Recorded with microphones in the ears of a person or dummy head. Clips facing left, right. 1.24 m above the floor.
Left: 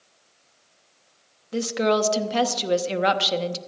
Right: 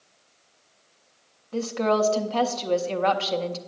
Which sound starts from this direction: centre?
A woman speaking, at 1.5 s.